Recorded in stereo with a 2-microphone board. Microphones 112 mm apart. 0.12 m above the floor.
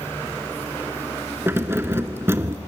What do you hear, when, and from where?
1.5 s keys jangling: 20° right (ahead or behind), 0.8 m